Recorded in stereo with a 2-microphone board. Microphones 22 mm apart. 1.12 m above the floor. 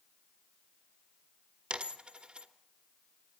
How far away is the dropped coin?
About 1.1 m.